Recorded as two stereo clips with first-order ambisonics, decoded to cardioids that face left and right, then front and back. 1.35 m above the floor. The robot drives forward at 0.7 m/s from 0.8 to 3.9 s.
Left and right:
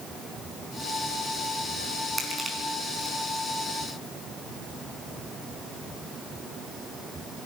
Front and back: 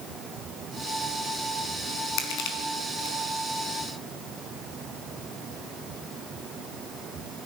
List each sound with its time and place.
2.2 s crushing: 10° right, 4.5 m